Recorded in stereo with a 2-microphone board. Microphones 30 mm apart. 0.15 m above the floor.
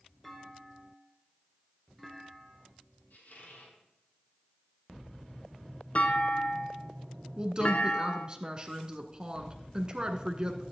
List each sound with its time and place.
0.2 s a clunk: centre (ahead or behind), 1.8 m
3.1 s a squeak: 70° left (ahead or behind), 4 m
6.0 s a clunk: 50° left (ahead or behind), 1.0 m
7.4 s a woman speaking: 25° right (ahead or behind), 1.4 m